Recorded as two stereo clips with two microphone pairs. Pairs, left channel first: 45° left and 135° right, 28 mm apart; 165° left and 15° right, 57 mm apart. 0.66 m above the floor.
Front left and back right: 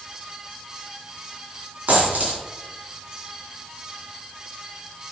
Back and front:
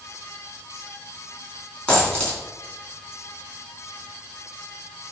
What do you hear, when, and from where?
1.9 s a dropped coin: 125° right, 3.5 m